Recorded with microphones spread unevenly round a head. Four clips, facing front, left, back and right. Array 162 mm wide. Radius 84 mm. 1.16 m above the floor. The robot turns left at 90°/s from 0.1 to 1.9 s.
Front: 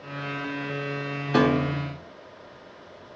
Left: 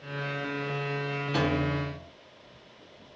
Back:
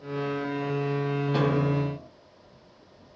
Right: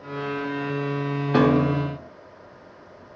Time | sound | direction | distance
1.3 | a piano | 40° right | 0.6 m